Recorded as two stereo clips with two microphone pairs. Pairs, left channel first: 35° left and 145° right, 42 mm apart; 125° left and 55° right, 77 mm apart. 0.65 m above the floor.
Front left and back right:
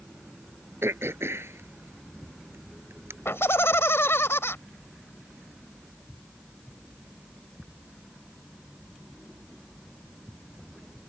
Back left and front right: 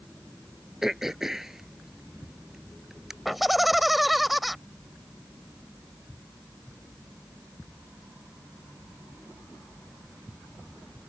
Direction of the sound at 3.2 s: 35° left.